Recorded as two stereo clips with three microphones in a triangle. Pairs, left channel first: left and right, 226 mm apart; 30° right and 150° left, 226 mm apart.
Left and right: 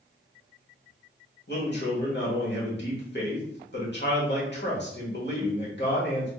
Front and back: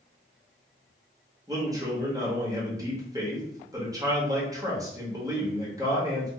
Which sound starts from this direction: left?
A man speaking, at 1.5 s.